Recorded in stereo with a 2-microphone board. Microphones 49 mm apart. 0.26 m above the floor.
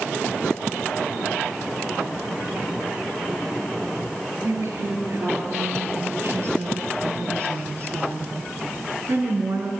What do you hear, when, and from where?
4.4 s a woman speaking: 65° right (ahead or behind), 5 m; by 9.7 s 60° right (ahead or behind), 3.5 m